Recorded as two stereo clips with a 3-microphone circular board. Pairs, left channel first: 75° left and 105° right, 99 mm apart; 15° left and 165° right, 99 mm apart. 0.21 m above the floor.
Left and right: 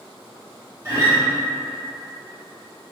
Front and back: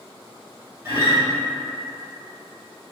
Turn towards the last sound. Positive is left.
turn(degrees=-130)